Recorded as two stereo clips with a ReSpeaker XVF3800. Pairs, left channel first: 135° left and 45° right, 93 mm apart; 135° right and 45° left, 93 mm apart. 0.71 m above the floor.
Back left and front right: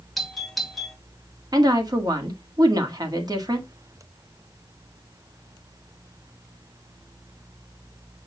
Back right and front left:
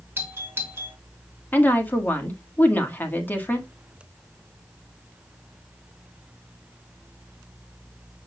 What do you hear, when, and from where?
0.2 s a doorbell: 50° left, 1.6 m
1.5 s a woman speaking: 70° right, 1.6 m